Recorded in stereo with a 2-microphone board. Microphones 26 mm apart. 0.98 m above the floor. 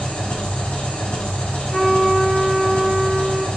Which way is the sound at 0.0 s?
80° left.